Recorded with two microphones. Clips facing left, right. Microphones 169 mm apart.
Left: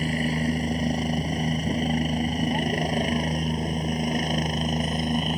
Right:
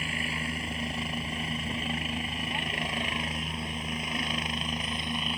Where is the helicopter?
40° left (ahead or behind); by 5.4 s 45° left (ahead or behind).